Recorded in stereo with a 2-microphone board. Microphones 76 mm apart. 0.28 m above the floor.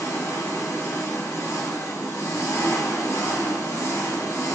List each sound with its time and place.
0.0 s an engine running: 40° left (ahead or behind), 0.9 m